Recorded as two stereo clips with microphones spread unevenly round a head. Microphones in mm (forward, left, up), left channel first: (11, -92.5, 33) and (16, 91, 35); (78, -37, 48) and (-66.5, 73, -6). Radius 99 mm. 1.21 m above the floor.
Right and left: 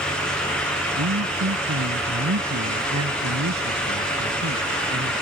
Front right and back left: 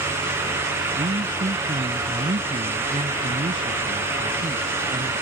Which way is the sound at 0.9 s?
80° left.